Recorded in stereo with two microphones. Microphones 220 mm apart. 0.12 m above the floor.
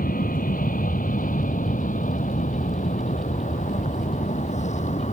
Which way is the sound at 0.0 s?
40° left (ahead or behind).